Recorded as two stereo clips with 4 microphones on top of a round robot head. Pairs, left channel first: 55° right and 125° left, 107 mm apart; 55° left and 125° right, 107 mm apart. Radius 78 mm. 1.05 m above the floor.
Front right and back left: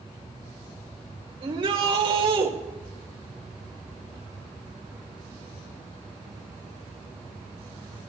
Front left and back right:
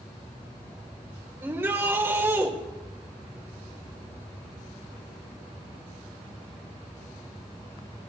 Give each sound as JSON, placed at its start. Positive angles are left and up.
{"t": 1.4, "sound": "a shout", "azimuth_deg": 165, "distance_m": 4.0}